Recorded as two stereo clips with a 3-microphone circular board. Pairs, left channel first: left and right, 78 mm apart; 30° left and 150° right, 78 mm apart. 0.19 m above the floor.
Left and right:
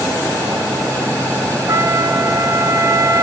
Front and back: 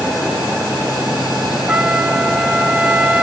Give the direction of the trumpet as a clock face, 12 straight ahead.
3 o'clock.